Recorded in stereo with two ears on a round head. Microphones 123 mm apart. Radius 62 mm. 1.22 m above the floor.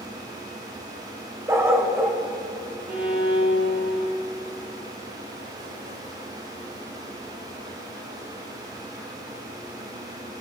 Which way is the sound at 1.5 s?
20° right (ahead or behind).